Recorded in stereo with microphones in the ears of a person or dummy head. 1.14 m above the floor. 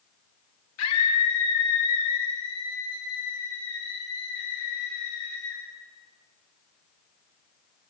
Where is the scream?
70° left (ahead or behind), 2.0 m; by 5.6 s 80° left, 5 m.